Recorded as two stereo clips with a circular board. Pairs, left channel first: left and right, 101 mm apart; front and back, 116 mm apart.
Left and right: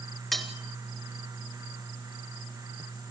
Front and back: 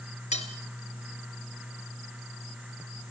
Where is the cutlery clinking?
Straight ahead, 2 m.